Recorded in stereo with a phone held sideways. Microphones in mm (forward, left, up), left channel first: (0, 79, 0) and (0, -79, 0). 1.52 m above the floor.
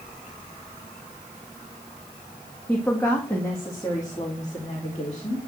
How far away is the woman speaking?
About 2 m.